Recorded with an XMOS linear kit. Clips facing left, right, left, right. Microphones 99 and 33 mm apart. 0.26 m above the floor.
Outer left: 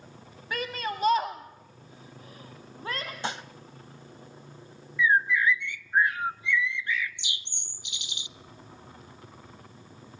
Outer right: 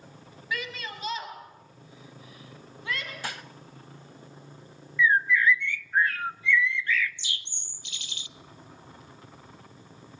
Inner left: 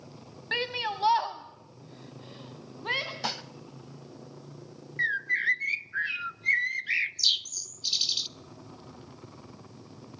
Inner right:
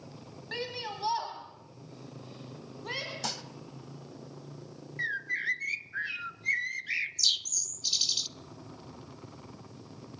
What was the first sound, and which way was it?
A shout, 45° left (ahead or behind).